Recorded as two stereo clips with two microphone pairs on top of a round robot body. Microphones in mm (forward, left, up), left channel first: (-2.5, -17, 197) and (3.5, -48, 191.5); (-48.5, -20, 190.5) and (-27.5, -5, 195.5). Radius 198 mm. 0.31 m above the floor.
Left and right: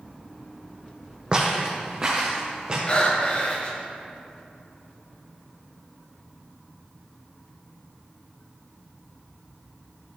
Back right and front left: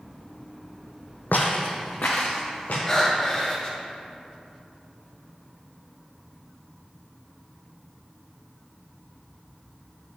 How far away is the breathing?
About 1.7 m.